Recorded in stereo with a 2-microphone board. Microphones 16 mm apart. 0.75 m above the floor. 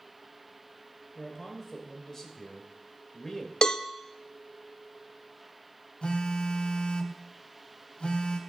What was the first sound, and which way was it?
A man speaking, 15° left (ahead or behind).